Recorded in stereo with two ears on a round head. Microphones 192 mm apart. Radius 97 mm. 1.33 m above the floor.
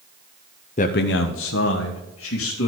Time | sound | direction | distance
0.8 | a man speaking | 35° left (ahead or behind) | 0.5 m